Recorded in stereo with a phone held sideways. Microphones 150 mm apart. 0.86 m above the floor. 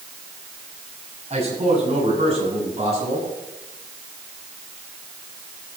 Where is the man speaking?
45° right (ahead or behind), 6.5 m.